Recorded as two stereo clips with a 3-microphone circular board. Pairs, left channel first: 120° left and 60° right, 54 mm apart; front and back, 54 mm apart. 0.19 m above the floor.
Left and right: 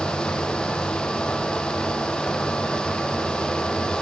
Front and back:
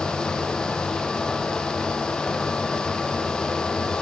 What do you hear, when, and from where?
Only background noise.